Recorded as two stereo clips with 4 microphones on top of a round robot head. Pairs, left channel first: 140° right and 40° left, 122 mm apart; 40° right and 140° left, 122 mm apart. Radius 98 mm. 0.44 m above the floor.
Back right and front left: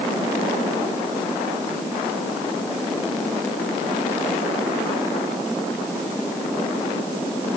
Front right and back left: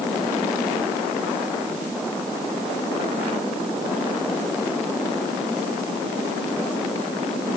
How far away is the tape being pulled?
I don't hear tape being pulled.